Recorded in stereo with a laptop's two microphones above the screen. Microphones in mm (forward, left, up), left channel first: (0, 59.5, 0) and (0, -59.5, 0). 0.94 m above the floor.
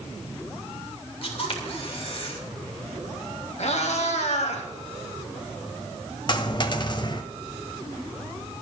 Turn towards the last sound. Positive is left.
turn(degrees=40)  # may be behind; listen again after turning